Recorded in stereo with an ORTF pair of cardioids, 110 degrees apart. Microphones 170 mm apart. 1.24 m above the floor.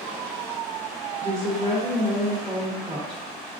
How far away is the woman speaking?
About 0.9 m.